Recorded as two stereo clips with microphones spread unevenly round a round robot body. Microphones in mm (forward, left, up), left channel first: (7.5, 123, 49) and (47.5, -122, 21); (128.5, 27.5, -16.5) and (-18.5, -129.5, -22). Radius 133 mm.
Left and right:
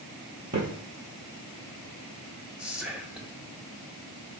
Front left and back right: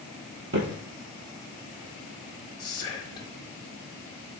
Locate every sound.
0.5 s footsteps: 130° right, 1.4 m
2.6 s whispering: 5° right, 0.5 m